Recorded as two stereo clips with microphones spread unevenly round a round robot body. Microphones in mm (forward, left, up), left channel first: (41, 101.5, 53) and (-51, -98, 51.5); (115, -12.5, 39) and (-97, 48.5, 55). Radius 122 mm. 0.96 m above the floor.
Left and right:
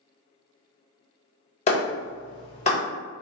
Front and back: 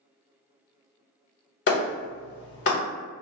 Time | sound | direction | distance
1.7 | a clap | 10° left | 1.2 m